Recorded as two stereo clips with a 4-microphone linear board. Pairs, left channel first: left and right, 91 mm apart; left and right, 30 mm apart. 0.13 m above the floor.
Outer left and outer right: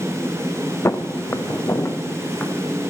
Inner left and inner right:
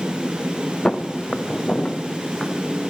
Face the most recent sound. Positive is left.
turn(degrees=25)  # may be behind; listen again after turning